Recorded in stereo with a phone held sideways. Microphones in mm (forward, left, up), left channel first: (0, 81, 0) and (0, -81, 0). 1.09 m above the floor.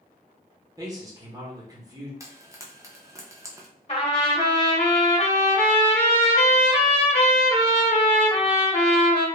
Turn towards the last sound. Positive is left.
turn(degrees=35)  # may be behind; listen again after turning